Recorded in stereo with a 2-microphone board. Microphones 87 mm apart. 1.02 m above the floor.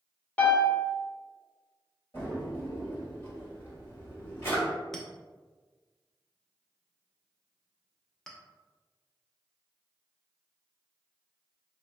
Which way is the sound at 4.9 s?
5° left (ahead or behind).